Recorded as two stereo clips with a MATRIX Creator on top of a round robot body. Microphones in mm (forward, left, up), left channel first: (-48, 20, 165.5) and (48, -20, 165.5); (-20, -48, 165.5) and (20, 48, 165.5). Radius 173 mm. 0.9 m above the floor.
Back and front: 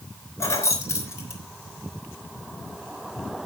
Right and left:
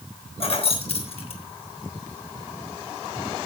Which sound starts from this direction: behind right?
Keys jangling, at 0.4 s.